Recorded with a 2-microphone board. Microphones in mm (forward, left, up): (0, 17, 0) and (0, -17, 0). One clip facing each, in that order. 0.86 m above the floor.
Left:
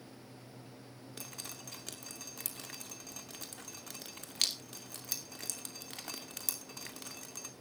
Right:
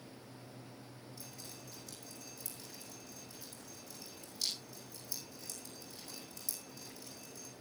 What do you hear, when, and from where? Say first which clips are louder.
1.2 s dripping: left 7 dB; 70° left (ahead or behind), 2.5 m